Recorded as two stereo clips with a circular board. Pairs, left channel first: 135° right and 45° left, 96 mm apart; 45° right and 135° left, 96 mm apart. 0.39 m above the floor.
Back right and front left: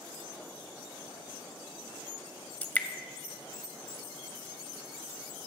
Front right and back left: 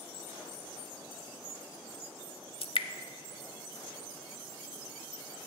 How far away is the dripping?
About 0.5 m.